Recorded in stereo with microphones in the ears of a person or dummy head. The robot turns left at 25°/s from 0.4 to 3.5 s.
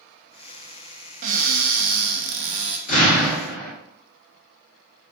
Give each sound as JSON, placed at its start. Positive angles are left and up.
{"t": 1.2, "sound": "a cupboard door", "azimuth_deg": -60, "distance_m": 0.5}
{"t": 2.9, "sound": "an explosion", "side_deg": 50, "distance_m": 1.0}